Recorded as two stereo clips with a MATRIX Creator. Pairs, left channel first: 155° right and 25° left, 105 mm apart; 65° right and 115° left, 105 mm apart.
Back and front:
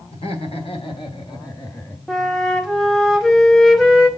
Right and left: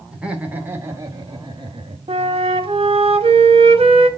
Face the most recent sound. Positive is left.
turn(degrees=115)